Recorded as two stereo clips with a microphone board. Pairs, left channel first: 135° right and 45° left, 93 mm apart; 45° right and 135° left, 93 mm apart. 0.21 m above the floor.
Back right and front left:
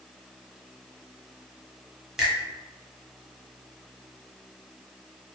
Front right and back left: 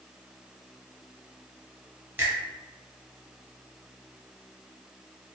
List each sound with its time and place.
2.2 s a finger snap: 120° left, 1.0 m